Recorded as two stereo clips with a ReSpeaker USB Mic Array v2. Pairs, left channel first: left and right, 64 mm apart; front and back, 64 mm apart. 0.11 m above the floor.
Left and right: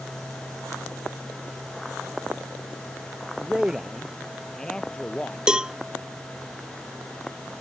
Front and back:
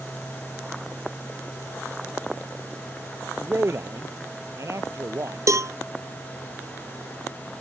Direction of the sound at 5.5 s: 165° right.